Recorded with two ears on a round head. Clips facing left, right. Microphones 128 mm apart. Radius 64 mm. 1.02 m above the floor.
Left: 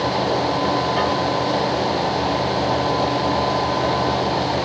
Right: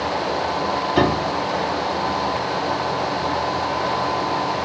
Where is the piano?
55° right (ahead or behind).